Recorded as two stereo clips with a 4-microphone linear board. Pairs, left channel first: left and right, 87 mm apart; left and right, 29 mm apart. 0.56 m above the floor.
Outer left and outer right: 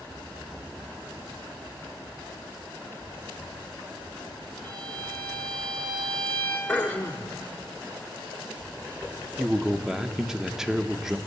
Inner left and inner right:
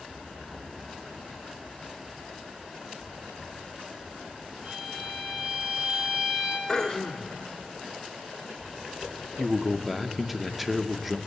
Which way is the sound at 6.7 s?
20° left (ahead or behind).